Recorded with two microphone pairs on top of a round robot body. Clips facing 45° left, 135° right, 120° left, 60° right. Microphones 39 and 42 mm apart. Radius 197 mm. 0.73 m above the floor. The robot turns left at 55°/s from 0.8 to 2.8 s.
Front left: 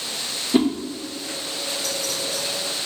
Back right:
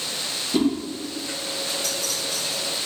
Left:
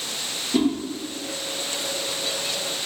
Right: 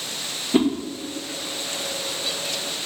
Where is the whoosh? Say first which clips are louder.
Front left 2 dB, right 2 dB; 5° right, 0.5 m.